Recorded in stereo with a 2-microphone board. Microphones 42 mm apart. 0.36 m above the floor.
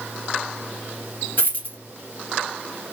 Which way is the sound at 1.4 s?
50° left (ahead or behind).